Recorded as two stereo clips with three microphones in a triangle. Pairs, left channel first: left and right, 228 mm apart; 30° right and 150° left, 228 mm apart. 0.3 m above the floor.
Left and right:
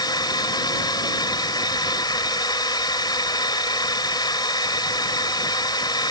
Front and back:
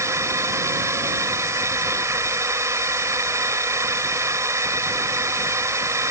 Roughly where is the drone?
Left.